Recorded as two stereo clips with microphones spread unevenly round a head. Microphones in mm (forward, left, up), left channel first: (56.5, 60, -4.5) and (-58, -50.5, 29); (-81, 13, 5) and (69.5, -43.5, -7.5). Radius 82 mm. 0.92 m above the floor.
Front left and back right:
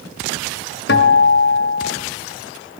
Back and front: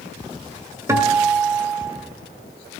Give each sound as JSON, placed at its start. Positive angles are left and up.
{"t": 0.9, "sound": "a guitar", "azimuth_deg": 55, "distance_m": 1.4}